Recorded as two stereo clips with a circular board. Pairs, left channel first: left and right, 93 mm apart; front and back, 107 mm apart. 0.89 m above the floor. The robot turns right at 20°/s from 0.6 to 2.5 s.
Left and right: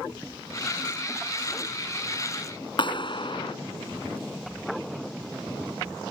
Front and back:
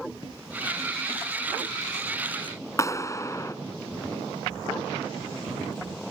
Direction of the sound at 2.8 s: 60° left.